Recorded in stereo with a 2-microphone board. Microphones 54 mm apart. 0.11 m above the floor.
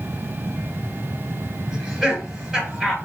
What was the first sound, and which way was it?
Laughter, 10° right (ahead or behind).